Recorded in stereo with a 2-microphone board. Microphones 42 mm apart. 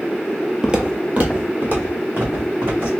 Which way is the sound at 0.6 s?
10° right (ahead or behind).